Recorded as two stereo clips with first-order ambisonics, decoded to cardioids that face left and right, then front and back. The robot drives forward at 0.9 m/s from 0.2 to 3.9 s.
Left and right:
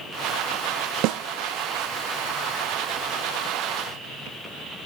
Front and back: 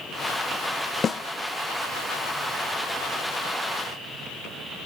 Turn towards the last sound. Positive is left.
turn(degrees=-165)